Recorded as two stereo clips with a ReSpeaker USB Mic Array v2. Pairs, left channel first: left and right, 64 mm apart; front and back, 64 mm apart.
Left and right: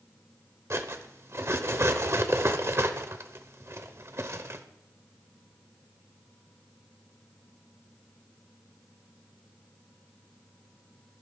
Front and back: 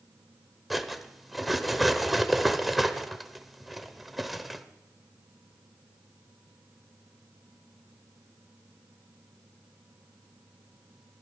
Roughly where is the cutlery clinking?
Right.